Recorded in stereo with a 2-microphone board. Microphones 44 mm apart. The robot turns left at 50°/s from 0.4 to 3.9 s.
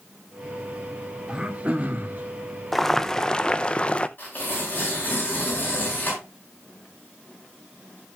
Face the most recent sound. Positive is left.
turn(degrees=40)  # may be behind; listen again after turning